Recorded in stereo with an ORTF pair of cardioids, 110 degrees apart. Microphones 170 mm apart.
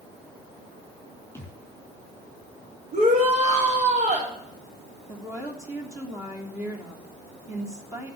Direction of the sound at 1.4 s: 10° left.